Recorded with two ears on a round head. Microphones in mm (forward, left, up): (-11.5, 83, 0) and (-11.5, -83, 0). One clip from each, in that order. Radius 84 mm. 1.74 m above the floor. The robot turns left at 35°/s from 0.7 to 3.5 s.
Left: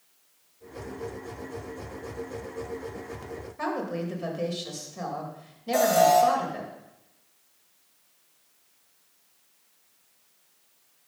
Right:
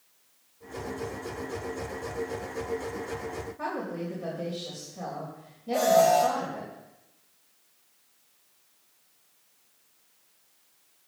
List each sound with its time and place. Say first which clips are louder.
3.6 s a woman speaking: left 4 dB; 75° left (ahead or behind), 2.5 m
5.7 s an alarm: left 1 dB; 80° left, 4.5 m